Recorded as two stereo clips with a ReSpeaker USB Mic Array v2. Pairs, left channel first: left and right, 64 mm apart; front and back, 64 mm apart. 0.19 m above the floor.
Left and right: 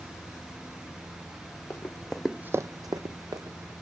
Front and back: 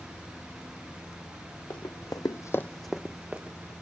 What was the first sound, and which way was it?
Running footsteps, 25° left.